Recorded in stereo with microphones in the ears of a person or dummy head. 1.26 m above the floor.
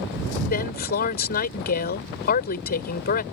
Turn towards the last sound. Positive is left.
turn(degrees=50)  # may be behind; listen again after turning